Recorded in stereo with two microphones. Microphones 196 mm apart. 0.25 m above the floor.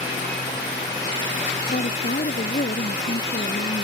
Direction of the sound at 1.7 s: 45° left (ahead or behind).